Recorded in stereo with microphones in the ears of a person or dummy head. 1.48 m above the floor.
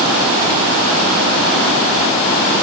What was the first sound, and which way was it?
Only background noise.